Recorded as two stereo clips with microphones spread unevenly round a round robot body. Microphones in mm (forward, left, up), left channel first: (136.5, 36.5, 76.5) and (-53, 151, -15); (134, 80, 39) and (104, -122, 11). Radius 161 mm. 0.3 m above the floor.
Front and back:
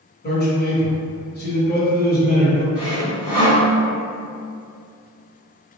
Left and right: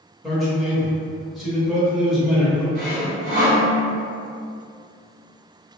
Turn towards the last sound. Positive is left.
turn(degrees=-105)